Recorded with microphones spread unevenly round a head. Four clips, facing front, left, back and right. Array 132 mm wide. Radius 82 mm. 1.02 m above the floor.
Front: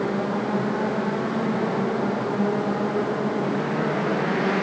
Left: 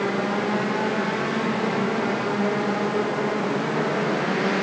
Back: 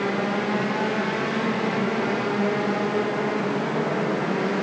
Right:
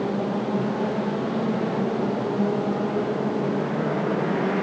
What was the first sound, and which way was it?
Only background noise.